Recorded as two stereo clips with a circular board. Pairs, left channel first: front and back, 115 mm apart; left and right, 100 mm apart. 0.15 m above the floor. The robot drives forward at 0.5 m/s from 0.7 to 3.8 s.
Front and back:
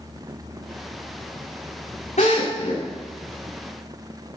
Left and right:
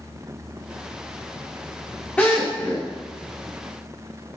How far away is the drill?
About 8 m.